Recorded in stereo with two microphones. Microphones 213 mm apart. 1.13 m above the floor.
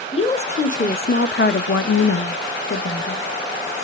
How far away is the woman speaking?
About 1.2 m.